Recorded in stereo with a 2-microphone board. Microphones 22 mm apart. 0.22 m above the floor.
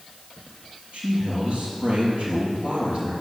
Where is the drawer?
I don't hear a drawer.